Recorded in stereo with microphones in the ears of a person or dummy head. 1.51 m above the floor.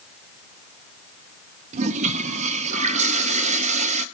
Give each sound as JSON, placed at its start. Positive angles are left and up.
{"t": 1.7, "sound": "a toilet flushing", "side_deg": -40, "distance_m": 0.8}